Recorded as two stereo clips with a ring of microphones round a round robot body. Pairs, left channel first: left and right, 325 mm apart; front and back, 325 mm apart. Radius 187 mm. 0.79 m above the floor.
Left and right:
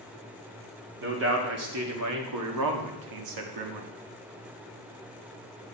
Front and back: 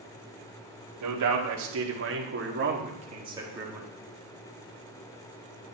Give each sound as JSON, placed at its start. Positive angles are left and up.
{"t": 1.0, "sound": "a man speaking", "azimuth_deg": -145, "distance_m": 2.0}